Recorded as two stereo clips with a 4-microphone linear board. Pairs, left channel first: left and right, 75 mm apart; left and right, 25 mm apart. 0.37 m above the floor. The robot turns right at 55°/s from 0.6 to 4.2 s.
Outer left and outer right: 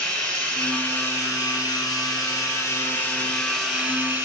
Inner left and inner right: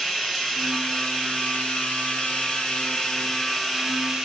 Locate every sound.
0.0 s running water: 10° left, 2.0 m; by 4.3 s 150° right, 2.0 m